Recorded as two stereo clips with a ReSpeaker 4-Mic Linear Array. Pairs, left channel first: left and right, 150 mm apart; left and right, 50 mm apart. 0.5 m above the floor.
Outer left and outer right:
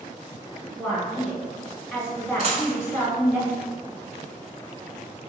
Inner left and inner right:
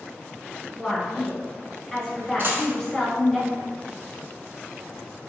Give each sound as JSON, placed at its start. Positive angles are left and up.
{"t": 0.8, "sound": "a woman speaking", "side_deg": 0, "distance_m": 1.2}
{"t": 2.4, "sound": "a dropped coin", "side_deg": -45, "distance_m": 0.6}